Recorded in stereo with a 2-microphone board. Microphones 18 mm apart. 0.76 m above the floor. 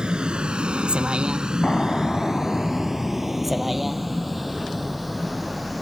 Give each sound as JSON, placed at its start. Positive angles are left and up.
{"t": 0.0, "sound": "a vehicle", "side_deg": -65}
{"t": 1.6, "sound": "an explosion", "side_deg": 40}